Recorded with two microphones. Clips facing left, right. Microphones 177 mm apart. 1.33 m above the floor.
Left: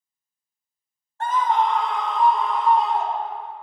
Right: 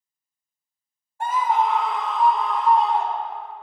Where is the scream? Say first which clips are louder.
Even; 10° right (ahead or behind), 0.8 m; by 3.5 s centre (ahead or behind), 2.5 m.